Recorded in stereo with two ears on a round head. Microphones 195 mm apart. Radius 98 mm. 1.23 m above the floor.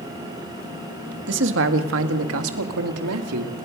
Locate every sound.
1.3 s a man speaking: 55° right (ahead or behind), 1.8 m; by 3.6 s 85° right, 2.5 m